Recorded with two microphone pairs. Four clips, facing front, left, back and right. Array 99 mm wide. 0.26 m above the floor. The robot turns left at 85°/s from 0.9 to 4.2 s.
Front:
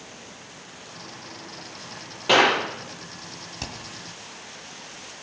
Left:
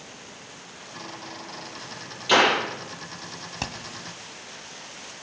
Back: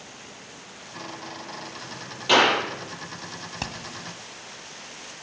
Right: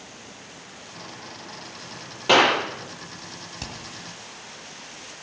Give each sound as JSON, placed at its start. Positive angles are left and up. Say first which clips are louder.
{"t": 2.3, "sound": "a clap", "louder": "right 2 dB, front 1 dB", "azimuth_deg": -65, "distance_m": 6.5}
{"t": 3.6, "sound": "hammering", "louder": "left 5 dB, back 3 dB", "azimuth_deg": 125, "distance_m": 1.7}